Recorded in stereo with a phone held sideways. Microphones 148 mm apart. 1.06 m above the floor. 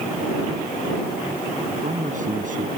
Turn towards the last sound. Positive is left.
turn(degrees=-65)  # may be behind; listen again after turning